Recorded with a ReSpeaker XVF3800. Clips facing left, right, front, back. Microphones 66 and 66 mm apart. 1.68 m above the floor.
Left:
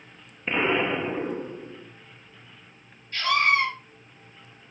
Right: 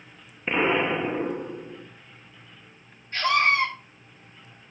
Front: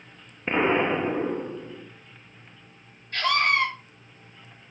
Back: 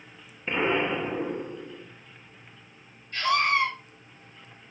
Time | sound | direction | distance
0.5 | an explosion | 15° right | 1.1 m
3.1 | a scream | 30° right | 4.5 m